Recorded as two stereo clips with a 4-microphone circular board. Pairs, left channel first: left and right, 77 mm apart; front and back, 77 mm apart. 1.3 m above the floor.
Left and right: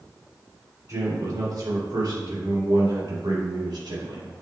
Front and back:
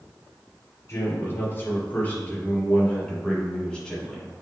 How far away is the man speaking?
About 3 m.